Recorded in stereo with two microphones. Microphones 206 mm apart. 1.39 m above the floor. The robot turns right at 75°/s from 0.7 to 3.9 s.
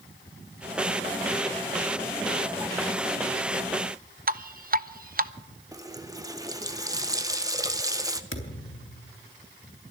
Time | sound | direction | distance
4.3 | dripping | 45° right (ahead or behind) | 0.5 m
5.7 | a running tap | 15° right (ahead or behind) | 1.0 m
8.3 | a thud | 75° left (ahead or behind) | 3.5 m